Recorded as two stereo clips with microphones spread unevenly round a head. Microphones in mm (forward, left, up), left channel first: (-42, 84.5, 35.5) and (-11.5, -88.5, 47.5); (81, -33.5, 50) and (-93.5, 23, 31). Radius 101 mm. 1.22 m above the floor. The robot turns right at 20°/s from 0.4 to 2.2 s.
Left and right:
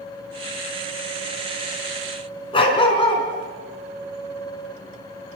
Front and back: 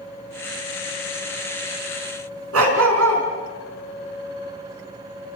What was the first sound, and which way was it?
A dog barking, 160° left.